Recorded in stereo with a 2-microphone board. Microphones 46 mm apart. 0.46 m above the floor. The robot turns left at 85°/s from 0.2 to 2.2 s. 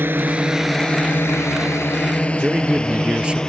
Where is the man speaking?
20° right (ahead or behind).